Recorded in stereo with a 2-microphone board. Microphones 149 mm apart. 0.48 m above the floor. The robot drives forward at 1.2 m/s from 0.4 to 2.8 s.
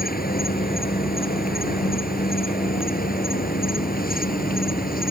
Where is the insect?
85° left; by 5.1 s 80° left.